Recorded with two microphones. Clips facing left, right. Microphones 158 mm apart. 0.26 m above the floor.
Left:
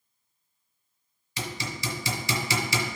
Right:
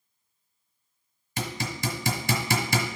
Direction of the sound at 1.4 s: 55° right (ahead or behind).